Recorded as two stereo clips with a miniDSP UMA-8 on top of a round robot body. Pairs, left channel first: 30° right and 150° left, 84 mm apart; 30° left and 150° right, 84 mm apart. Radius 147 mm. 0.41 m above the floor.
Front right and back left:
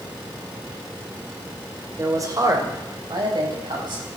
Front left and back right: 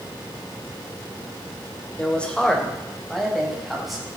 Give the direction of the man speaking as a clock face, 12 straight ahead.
9 o'clock.